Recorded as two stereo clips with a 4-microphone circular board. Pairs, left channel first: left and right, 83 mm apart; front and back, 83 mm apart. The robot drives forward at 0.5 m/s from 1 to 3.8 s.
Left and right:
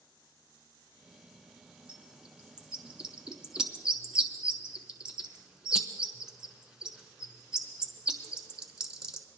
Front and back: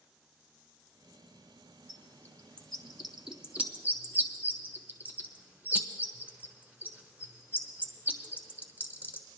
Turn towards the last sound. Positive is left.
turn(degrees=-155)